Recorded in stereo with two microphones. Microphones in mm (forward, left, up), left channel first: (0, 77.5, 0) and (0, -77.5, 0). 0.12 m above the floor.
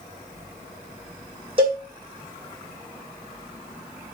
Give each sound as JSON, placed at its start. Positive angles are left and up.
{"t": 1.6, "sound": "a cowbell", "side_deg": -35, "distance_m": 1.1}